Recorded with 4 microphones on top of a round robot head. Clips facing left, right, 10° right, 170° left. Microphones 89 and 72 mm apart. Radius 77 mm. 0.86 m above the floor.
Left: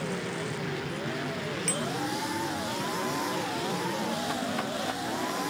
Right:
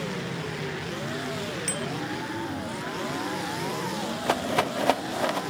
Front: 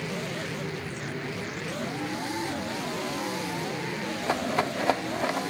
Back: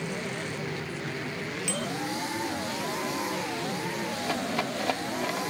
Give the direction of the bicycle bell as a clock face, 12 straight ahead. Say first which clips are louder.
Even, back 1 dB; 6 o'clock.